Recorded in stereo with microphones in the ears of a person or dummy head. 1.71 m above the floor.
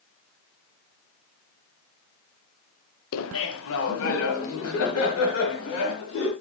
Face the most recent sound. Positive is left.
turn(degrees=75)  # may be behind; listen again after turning